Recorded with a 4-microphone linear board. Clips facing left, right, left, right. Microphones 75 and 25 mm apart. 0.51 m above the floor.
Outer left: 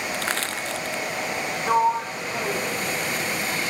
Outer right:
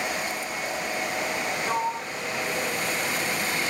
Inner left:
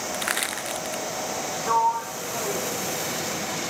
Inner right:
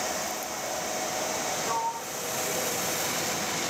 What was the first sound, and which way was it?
Crushing, 90° left.